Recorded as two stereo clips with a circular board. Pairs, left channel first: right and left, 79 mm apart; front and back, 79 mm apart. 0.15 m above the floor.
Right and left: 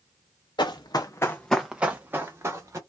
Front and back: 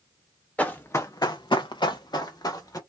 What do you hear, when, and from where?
0.6 s running footsteps: 75° right, 0.9 m; by 2.8 s 40° left, 1.4 m